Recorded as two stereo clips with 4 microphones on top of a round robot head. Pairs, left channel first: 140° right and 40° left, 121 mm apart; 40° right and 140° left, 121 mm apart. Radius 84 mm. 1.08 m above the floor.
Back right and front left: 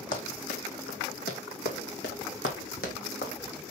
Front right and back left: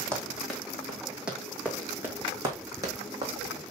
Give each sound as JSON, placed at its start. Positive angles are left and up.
{"t": 0.1, "sound": "running footsteps", "azimuth_deg": -120, "distance_m": 2.5}